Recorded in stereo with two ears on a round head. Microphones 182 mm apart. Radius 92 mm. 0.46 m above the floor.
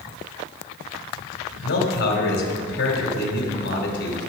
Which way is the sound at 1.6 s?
65° left (ahead or behind).